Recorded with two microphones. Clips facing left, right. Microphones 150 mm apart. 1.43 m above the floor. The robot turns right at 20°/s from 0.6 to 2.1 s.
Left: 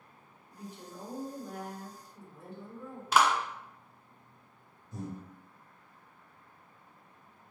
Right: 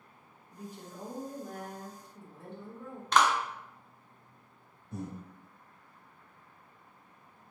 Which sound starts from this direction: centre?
A clap, at 3.1 s.